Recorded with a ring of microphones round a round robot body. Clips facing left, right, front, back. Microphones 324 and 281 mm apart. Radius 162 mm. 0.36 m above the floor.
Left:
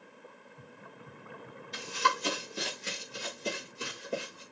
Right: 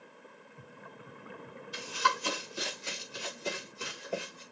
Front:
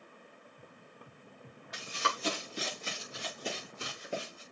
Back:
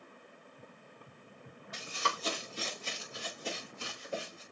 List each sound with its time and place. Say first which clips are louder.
1.7 s running footsteps: left 2 dB, front 1 dB; 25° left, 4.5 m; by 4.4 s 15° left, 5.5 m